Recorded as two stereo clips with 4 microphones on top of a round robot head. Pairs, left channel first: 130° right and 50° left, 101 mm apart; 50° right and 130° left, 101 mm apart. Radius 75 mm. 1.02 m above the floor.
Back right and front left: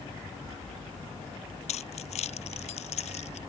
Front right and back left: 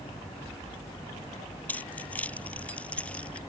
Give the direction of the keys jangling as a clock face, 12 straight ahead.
4 o'clock.